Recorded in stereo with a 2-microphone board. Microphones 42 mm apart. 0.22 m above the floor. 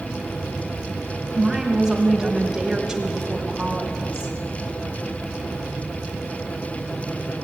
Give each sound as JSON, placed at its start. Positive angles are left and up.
{"t": 1.3, "sound": "a woman speaking", "side_deg": -10, "distance_m": 1.4}